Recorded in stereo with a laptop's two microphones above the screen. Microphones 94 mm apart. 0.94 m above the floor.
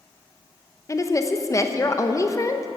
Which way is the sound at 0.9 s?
30° left (ahead or behind).